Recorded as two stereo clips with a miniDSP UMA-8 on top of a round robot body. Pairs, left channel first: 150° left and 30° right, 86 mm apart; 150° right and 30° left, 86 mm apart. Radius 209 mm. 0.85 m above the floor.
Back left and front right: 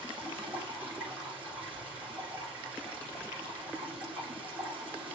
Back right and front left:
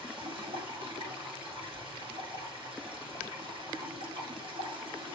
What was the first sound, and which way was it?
Running water, 45° left.